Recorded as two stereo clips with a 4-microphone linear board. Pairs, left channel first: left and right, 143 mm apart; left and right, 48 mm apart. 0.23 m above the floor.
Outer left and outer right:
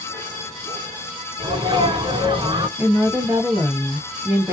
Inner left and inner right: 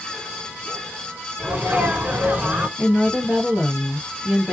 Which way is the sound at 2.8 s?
20° right (ahead or behind).